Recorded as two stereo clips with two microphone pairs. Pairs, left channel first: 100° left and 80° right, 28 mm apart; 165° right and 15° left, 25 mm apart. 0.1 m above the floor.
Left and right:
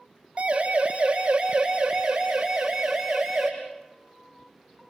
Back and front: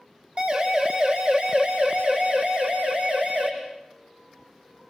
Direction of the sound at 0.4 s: 25° right.